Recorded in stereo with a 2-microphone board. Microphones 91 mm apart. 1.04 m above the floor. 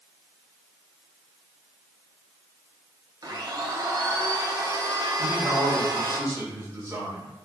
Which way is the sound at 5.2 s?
35° right (ahead or behind).